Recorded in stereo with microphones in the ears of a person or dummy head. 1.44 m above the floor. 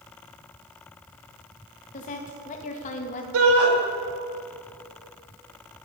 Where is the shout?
75° right (ahead or behind), 2 m.